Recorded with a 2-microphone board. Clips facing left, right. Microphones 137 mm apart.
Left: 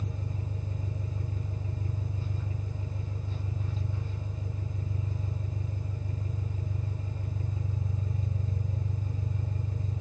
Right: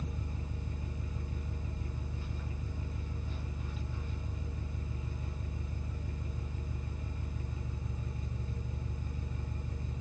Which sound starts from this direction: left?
An engine running, at 0.0 s.